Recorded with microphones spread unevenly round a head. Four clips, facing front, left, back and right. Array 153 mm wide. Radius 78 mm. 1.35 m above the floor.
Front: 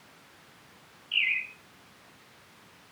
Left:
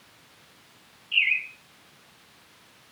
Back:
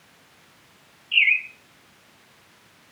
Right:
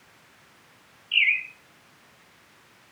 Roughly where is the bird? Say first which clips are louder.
Right 2 dB, back 8 dB; behind right.